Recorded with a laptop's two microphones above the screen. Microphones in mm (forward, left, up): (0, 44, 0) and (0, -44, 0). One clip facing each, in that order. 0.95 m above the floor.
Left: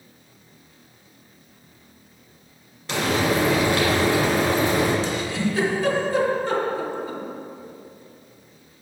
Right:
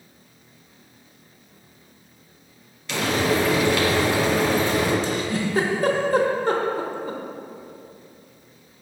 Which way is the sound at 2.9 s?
40° left (ahead or behind).